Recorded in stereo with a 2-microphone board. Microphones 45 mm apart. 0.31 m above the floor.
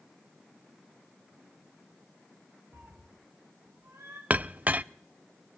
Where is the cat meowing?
80° right, 9.5 m; by 4.2 s 70° right (ahead or behind), 9 m.